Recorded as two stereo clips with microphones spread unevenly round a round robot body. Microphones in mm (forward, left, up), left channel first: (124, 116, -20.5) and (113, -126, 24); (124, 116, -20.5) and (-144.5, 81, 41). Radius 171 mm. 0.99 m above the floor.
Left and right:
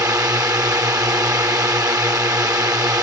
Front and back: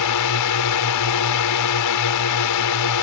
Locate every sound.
0.0 s a drone: 15° right